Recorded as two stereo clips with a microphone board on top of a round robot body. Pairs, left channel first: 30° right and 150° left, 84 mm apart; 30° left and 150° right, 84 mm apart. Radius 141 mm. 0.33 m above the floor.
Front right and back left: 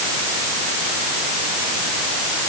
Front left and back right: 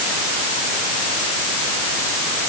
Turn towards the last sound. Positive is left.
No sound to turn to.